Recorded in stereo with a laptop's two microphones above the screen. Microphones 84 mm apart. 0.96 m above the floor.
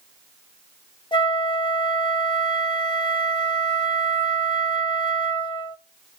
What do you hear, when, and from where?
1.1 s a flute: 65° left (ahead or behind), 1.3 m